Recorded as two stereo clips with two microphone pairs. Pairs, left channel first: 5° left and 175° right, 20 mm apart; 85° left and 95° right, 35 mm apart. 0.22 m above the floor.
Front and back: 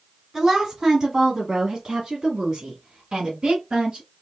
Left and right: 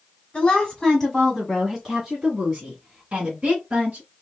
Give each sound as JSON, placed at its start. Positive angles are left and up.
{"t": 0.3, "sound": "a woman speaking", "azimuth_deg": 135, "distance_m": 1.5}